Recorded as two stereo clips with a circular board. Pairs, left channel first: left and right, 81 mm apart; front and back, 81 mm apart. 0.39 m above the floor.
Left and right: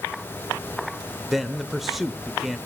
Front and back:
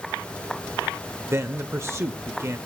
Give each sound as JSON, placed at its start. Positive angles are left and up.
{"t": 1.3, "sound": "a man speaking", "azimuth_deg": -175, "distance_m": 1.0}